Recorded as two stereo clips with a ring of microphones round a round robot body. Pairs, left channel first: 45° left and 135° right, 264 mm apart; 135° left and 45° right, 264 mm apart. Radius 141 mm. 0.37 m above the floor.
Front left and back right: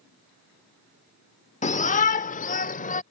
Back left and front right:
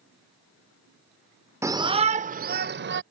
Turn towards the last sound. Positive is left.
turn(degrees=-10)